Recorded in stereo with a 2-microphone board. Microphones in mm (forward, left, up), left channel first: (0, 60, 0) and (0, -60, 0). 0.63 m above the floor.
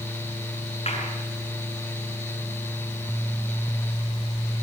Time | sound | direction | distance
0.9 | a clap | 55° left (ahead or behind) | 8 m